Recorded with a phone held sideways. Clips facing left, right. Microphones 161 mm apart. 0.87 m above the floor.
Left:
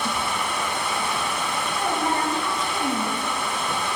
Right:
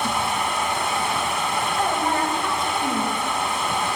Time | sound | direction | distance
0.0 | a machine running | 55° right (ahead or behind) | 1.6 m
1.8 | a woman speaking | 60° right (ahead or behind) | 5.5 m